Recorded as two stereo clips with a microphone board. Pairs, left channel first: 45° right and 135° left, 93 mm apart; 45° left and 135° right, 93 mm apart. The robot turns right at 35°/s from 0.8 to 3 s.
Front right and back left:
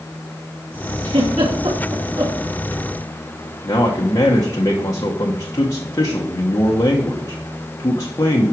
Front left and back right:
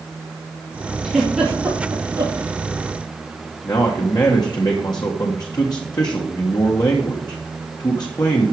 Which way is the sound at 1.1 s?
135° left.